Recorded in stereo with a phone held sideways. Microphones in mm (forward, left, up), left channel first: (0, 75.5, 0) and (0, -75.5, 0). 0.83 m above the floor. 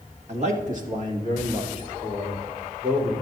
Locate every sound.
0.3 s a man speaking: 45° right (ahead or behind), 1.3 m; by 3.1 s 65° right (ahead or behind), 3.5 m